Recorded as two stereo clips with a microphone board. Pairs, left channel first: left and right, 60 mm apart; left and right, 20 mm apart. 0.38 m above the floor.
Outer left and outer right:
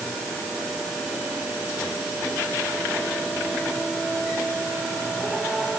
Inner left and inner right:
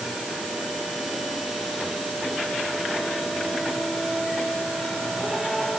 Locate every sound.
Only background noise.